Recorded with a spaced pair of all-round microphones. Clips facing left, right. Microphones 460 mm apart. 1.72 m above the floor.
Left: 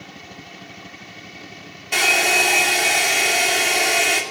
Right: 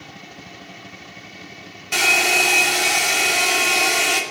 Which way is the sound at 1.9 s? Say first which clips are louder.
Left 1 dB; 25° right (ahead or behind).